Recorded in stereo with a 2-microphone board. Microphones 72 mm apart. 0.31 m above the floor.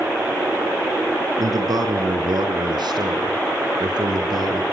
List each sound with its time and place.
1.4 s a man speaking: 55° right (ahead or behind), 4.5 m; by 4.6 s 65° right (ahead or behind), 6.5 m